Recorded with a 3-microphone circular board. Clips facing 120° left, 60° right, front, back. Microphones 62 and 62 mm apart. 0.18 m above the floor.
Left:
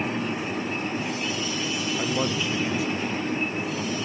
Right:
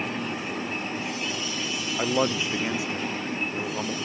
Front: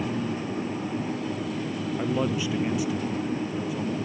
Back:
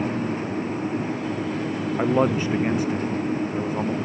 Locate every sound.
2.0 s a man speaking: 130° right